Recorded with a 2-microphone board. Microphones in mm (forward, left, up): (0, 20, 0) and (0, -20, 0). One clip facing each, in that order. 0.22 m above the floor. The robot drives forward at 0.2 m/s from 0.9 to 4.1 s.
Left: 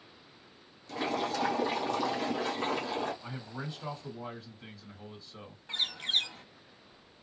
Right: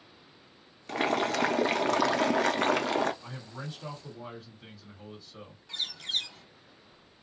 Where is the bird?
30° left (ahead or behind), 0.5 m.